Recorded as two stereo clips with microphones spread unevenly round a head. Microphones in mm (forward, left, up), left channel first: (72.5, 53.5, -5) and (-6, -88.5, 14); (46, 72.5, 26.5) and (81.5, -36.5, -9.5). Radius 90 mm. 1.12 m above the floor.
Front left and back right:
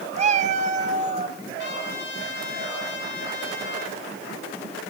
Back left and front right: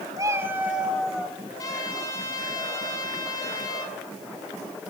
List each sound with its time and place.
0.2 s a cat meowing: 150° right, 1.0 m; by 1.4 s 170° right, 2 m
1.6 s a trumpet: 50° left, 9 m